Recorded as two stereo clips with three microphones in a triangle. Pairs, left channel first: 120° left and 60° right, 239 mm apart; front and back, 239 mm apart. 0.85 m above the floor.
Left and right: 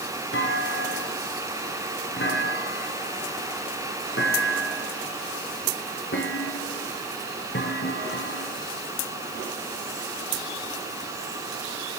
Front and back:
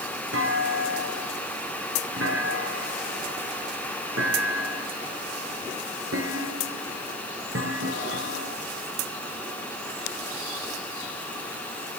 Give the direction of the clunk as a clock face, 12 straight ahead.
7 o'clock.